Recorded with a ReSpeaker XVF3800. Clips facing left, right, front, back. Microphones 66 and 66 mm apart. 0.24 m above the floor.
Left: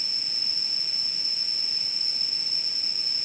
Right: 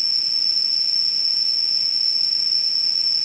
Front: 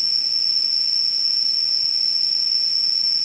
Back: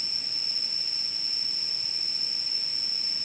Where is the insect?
85° left, 1.5 m.